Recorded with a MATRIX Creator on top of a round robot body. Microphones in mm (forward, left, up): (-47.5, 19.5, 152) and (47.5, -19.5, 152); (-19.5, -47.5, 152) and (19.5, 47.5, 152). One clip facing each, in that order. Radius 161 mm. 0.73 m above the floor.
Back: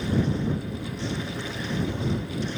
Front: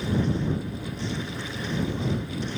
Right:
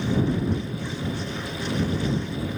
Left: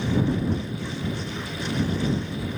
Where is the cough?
No cough in this recording.